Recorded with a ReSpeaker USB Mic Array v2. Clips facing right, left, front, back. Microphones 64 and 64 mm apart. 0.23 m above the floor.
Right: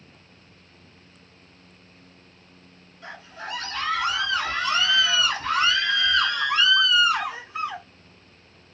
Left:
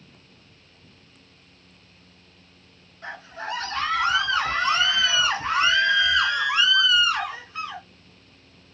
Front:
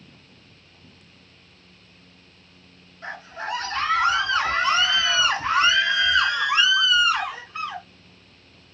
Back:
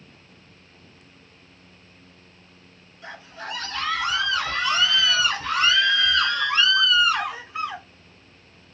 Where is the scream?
45° left, 2.5 m; by 7.9 s 125° right, 1.0 m.